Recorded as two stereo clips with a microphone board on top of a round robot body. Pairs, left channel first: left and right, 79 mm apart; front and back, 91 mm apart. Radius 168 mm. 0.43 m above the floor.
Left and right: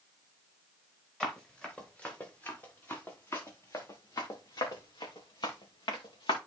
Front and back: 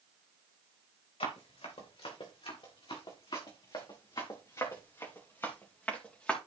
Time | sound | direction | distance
1.2 | running footsteps | 10° left | 4.5 m